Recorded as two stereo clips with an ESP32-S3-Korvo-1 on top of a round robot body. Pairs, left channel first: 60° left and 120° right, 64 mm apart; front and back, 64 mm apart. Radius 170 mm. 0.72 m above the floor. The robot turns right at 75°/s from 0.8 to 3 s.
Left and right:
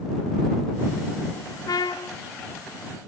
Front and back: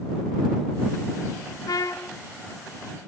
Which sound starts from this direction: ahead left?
A trumpet, at 1.7 s.